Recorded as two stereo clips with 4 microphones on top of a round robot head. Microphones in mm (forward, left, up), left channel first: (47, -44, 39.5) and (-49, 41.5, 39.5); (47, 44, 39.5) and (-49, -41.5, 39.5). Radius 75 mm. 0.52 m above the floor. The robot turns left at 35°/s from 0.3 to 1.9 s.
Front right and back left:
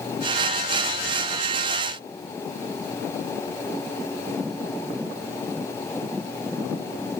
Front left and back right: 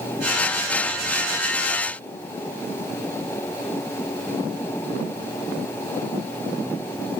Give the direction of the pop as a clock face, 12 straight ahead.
No pop in this recording.